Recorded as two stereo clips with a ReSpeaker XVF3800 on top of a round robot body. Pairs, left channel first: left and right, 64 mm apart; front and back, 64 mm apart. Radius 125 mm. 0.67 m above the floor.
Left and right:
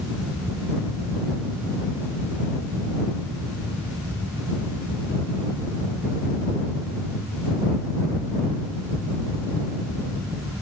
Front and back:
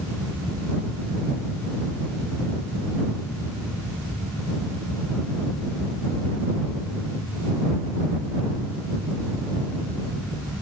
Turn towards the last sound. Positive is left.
No sound to turn to.